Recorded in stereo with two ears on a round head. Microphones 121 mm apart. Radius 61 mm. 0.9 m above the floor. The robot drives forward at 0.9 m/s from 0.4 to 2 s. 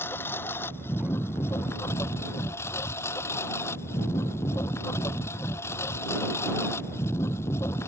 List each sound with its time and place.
0.0 s a lawn mower: 15° left (ahead or behind); by 7.9 s 20° left (ahead or behind)